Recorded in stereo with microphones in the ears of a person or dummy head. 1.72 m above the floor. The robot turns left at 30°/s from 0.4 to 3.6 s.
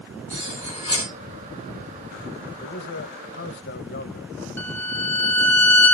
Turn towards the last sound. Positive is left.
turn(degrees=5)  # may be behind; listen again after turning